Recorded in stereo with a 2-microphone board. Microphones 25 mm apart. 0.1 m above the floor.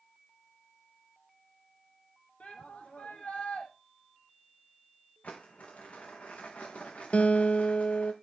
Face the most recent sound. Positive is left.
turn(degrees=55)  # may be behind; listen again after turning